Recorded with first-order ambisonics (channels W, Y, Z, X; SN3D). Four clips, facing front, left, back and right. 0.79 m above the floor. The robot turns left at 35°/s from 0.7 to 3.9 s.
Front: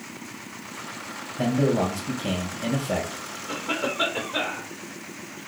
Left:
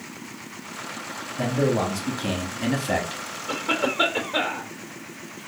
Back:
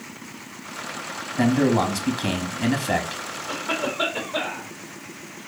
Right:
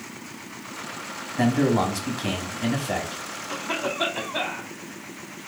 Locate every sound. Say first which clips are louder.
1.4 s a man speaking: right 2 dB, back 3 dB; 160° right, 1.1 m; by 3.4 s 130° left, 1.1 m
3.5 s a cough: left 4 dB, back 1 dB; 90° left, 2.5 m; by 4.7 s 75° left, 2.5 m